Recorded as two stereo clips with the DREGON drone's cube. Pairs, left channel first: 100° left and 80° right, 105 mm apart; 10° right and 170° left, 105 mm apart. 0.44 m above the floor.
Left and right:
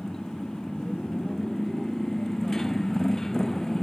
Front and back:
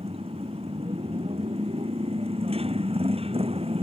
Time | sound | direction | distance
0.0 | a motorcycle | 175° right | ?